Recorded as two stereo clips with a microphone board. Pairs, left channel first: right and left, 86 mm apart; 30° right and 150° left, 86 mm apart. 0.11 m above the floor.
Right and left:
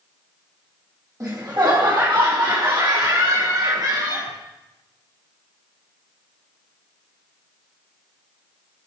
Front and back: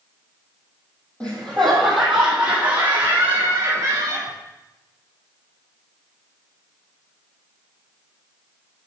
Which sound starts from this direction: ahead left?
Laughter, at 1.2 s.